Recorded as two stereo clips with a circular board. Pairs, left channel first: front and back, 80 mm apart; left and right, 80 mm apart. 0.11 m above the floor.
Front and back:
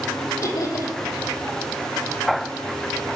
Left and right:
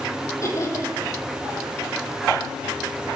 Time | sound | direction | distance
0.4 | laughter | 45° left | 4 m